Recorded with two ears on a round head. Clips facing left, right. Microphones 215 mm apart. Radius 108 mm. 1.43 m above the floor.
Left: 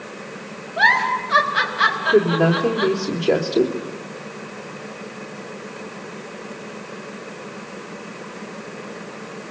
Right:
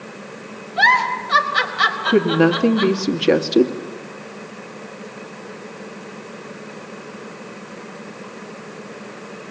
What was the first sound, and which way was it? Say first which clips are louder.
A giggle: right 1 dB; 55° right (ahead or behind).